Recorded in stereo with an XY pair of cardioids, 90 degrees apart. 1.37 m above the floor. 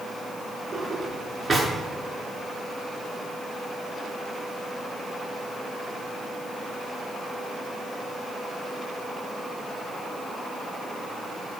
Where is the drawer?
15° right, 7 m.